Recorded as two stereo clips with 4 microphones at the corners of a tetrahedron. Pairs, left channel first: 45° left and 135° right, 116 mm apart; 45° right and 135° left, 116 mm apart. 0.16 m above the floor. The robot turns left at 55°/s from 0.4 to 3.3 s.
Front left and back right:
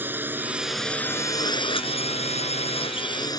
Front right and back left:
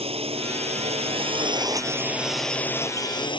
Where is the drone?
155° left; by 3.4 s 5° right.